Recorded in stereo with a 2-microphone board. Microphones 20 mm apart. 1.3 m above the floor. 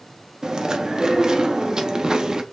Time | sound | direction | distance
0.4 | chewing | 30° right (ahead or behind) | 0.6 m